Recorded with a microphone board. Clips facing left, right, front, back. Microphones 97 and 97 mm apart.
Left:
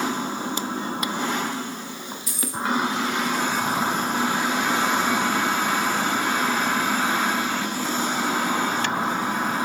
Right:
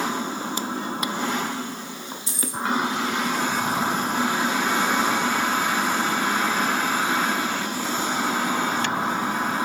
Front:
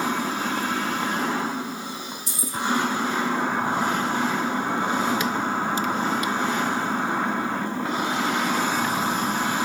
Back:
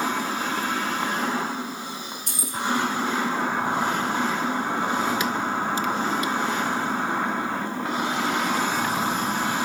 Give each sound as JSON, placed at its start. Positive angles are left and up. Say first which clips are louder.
{"t": 2.3, "sound": "keys jangling", "louder": "even, front 2 dB", "azimuth_deg": -150, "distance_m": 3.0}